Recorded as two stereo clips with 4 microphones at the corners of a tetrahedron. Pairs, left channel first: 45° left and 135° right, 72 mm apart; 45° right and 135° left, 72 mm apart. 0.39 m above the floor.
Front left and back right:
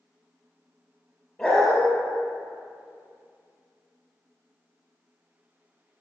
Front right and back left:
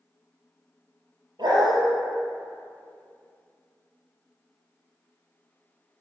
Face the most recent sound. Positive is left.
turn(degrees=135)